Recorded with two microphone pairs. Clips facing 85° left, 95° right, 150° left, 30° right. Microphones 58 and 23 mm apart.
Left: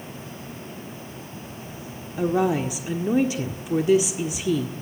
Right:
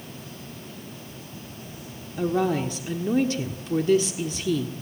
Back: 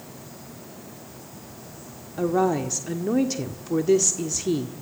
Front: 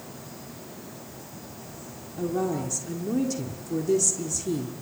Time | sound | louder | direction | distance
2.2 | a woman speaking | left 2 dB, back 5 dB | 155° left | 1.4 m